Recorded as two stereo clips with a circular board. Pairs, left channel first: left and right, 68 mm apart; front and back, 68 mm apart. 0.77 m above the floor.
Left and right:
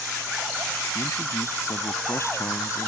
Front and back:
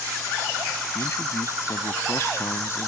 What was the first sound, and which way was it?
A man speaking, 45° left.